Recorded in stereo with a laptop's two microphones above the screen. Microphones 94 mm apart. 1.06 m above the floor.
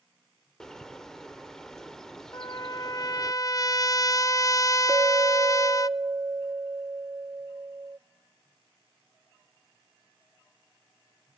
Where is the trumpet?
35° left (ahead or behind), 0.5 m.